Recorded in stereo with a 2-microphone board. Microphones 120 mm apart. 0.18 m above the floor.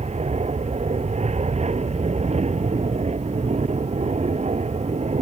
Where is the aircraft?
70° right (ahead or behind).